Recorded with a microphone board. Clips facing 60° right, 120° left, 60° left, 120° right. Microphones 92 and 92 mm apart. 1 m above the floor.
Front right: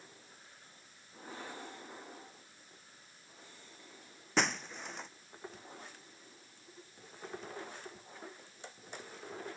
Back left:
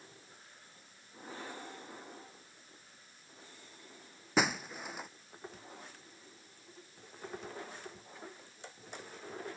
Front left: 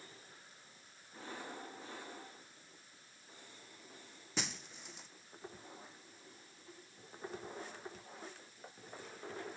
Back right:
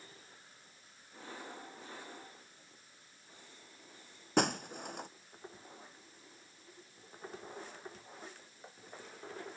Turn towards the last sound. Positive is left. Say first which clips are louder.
# back left 2 dB, back right 13 dB
turn(degrees=-155)